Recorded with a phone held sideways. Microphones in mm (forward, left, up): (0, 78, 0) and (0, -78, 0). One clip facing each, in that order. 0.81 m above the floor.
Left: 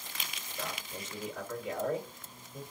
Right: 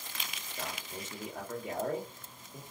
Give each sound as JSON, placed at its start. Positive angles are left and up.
{"t": 0.6, "sound": "a man speaking", "side_deg": -50, "distance_m": 1.4}